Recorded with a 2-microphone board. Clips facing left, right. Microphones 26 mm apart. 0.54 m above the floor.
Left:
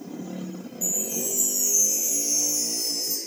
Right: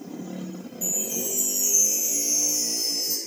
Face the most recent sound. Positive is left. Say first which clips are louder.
# even
turn(degrees=-45)  # may be behind; listen again after turning